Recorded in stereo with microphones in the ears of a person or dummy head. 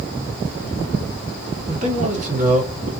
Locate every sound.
1.7 s a man speaking: 45° right (ahead or behind), 1.8 m